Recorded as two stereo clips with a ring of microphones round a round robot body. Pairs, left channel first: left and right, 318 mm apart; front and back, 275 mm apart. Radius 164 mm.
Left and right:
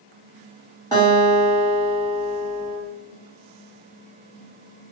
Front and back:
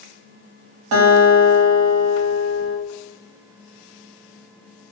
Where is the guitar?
165° left, 1.0 m.